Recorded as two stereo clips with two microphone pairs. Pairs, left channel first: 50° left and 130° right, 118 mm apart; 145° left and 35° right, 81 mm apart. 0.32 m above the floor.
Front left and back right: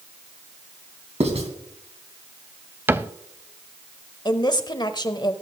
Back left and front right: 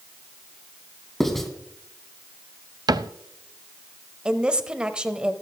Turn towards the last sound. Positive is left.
turn(degrees=35)